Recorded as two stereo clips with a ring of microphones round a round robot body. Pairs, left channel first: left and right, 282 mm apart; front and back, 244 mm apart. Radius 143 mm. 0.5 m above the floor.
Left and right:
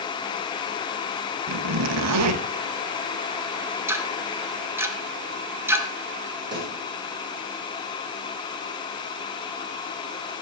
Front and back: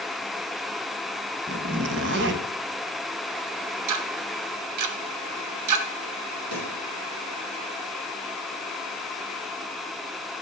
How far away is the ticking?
About 1.7 m.